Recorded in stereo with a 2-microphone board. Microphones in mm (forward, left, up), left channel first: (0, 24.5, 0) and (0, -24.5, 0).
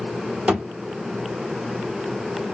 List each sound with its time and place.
0.5 s a thud: 20° right (ahead or behind), 1.7 m